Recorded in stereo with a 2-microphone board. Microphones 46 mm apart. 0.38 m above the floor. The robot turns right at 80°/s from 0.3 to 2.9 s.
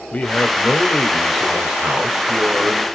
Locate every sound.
0.1 s a man speaking: 30° left (ahead or behind), 0.9 m; by 2.9 s 25° right (ahead or behind), 0.9 m